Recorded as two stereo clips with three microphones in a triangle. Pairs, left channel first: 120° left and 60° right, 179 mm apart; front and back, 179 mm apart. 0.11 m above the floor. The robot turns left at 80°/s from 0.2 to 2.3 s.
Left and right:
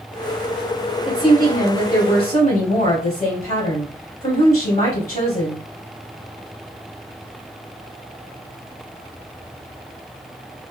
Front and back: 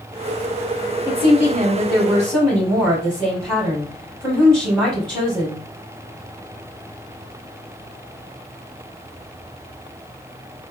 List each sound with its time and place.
1.1 s a woman speaking: straight behind, 3 m; by 5.6 s 80° left, 3 m